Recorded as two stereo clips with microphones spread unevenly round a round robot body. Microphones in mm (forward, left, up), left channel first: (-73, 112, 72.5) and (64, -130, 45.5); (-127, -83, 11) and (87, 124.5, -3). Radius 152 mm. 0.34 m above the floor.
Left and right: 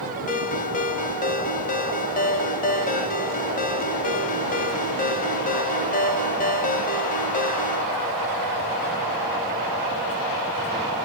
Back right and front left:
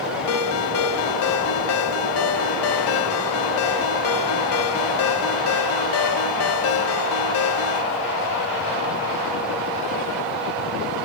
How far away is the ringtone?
About 1.2 m.